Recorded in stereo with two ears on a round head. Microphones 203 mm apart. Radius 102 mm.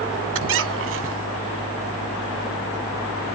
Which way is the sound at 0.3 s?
60° right (ahead or behind).